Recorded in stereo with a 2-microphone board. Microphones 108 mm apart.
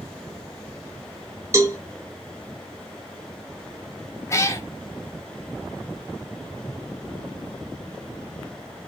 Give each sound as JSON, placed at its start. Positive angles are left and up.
{"t": 1.5, "sound": "a cowbell", "side_deg": -25, "distance_m": 0.9}
{"t": 4.3, "sound": "a cat meowing", "side_deg": 25, "distance_m": 0.8}